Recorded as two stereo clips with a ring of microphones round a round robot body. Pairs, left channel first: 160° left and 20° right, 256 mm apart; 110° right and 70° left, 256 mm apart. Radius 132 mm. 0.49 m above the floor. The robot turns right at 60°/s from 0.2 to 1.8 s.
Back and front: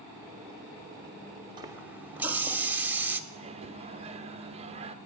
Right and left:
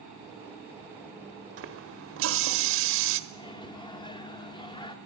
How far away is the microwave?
About 0.6 m.